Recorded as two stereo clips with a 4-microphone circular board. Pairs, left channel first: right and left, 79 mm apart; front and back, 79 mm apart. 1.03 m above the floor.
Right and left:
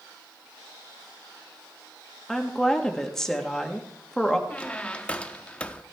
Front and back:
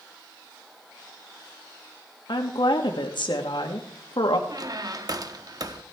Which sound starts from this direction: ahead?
A woman speaking, at 2.3 s.